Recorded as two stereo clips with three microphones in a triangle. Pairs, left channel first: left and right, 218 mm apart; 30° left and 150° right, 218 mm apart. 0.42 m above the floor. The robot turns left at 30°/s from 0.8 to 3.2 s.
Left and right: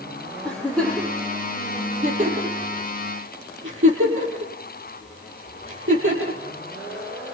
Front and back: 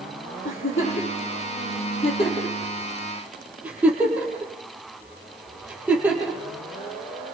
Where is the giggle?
5° left, 6.5 m; by 7.3 s 65° right, 6.5 m.